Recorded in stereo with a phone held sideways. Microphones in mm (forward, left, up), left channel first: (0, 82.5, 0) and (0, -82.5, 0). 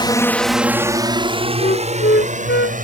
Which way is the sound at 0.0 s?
30° left (ahead or behind).